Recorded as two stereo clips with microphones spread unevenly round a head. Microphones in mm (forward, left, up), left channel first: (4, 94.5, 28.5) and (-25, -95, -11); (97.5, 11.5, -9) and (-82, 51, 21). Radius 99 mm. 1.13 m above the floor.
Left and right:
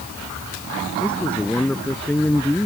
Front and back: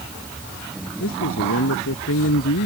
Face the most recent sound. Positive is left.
turn(degrees=-5)